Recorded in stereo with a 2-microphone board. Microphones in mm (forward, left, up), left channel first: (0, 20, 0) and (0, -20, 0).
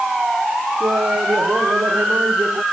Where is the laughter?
85° right.